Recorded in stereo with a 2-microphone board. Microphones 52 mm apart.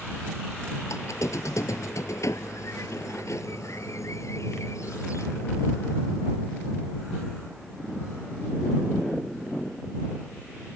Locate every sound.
0.9 s a squeak: 80° left